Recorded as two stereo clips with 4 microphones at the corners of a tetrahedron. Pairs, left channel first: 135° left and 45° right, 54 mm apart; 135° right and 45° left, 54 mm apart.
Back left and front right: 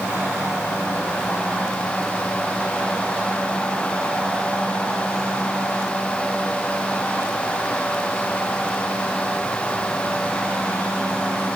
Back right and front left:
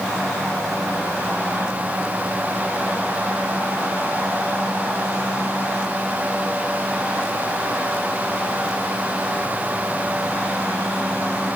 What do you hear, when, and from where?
Only background noise.